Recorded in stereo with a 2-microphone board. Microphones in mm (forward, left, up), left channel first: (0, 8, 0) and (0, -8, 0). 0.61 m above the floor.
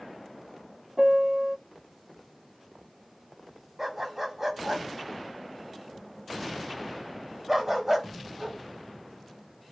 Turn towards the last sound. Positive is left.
turn(degrees=-20)  # may be behind; listen again after turning